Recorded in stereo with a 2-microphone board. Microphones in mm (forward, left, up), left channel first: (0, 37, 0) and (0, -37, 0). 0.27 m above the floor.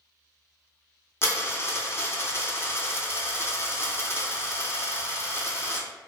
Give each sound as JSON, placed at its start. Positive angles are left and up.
{"t": 1.2, "sound": "a dropped coin", "side_deg": 35, "distance_m": 0.6}